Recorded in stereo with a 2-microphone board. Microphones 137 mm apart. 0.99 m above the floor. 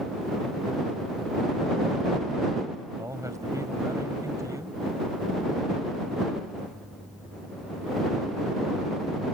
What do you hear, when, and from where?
3.0 s a man speaking: 25° right (ahead or behind)